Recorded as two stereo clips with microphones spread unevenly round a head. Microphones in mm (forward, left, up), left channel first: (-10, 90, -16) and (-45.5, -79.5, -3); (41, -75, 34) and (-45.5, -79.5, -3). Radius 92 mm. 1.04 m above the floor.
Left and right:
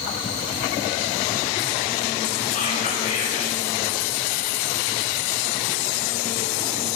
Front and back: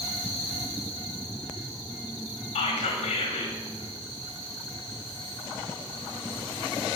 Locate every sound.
2.5 s whispering: 20° left, 3.5 m